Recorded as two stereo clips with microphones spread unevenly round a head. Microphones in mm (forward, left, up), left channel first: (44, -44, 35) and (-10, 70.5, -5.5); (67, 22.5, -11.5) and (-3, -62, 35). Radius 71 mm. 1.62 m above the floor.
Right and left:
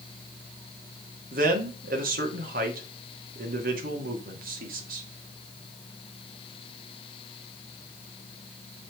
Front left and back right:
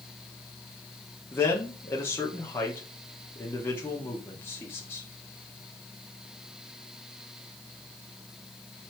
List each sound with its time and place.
1.3 s a man speaking: 125° left, 2 m